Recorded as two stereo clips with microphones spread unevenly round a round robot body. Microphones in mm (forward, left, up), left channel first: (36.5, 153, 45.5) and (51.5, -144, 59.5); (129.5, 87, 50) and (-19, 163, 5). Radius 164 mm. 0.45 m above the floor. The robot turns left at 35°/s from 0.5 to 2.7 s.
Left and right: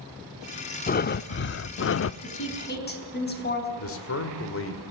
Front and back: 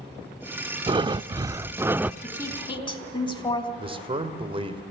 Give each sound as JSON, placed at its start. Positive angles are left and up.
{"t": 0.9, "sound": "breathing", "azimuth_deg": 135, "distance_m": 0.5}
{"t": 2.2, "sound": "a woman speaking", "azimuth_deg": 55, "distance_m": 4.0}
{"t": 3.8, "sound": "a man speaking", "azimuth_deg": 120, "distance_m": 2.5}